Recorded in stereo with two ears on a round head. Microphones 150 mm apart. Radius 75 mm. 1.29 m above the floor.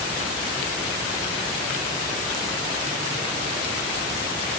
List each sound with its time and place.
Only background noise.